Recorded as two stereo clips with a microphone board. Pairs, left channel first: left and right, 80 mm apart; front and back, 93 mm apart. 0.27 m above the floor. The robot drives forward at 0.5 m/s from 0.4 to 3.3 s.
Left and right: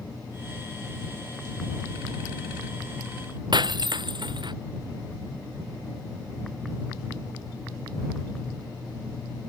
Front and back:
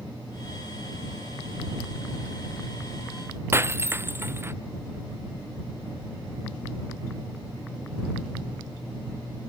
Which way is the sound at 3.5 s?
115° right.